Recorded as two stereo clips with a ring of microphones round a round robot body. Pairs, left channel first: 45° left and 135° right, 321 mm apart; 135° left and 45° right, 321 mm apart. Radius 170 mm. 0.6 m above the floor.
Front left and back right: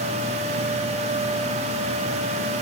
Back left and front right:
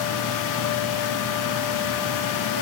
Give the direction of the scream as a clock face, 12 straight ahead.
No scream in this recording.